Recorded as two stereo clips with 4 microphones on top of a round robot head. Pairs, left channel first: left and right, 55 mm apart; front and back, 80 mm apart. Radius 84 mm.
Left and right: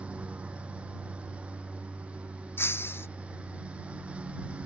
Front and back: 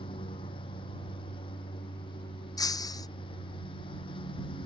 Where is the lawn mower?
20° right.